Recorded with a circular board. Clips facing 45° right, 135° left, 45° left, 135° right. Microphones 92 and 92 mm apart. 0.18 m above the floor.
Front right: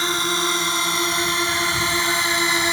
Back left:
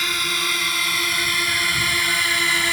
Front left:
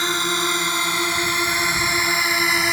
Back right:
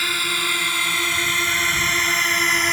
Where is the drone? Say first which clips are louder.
Front right 4 dB, front left 3 dB; 5° right; by 2.7 s 30° right.